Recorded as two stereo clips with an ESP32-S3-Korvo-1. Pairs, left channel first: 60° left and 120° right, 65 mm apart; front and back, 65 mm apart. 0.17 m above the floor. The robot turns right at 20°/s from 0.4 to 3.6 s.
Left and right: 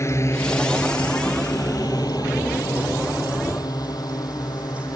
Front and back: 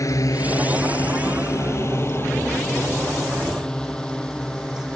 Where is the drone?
25° left; by 5.0 s 75° left.